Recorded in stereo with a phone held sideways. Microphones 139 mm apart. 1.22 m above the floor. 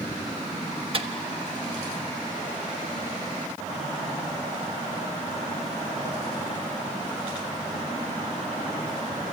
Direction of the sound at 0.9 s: 40° right (ahead or behind).